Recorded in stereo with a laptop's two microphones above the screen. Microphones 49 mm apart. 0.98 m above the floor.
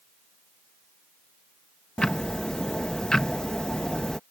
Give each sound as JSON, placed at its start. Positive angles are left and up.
{"t": 2.0, "sound": "ticking", "side_deg": 15}